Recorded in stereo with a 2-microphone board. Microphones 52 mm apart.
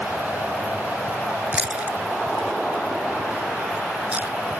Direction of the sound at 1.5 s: 25° right (ahead or behind).